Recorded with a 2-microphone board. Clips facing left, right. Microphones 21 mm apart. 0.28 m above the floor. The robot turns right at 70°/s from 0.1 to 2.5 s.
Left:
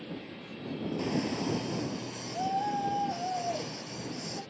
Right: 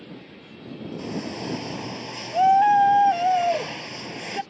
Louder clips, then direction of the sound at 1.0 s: Right 1 dB; 170° left.